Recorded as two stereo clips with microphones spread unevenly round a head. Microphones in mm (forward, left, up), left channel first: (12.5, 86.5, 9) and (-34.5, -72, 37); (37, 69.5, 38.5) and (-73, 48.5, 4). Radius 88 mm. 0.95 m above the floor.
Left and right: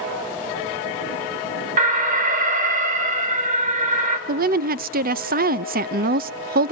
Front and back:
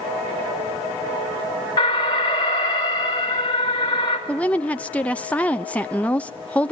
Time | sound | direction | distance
1.8 | an alarm | 60° right | 2.5 m
4.3 | a woman speaking | 80° right | 0.6 m